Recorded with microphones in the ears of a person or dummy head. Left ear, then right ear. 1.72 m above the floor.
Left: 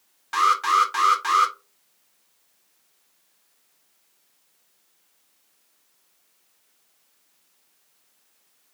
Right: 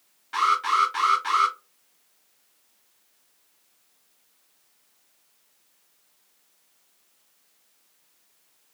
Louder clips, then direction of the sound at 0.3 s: Left 3 dB; 40° left (ahead or behind).